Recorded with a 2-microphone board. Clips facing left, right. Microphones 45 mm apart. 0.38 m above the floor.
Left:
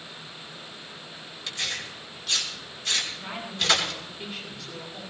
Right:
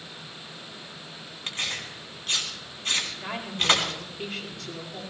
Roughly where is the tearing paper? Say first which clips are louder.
Even; right.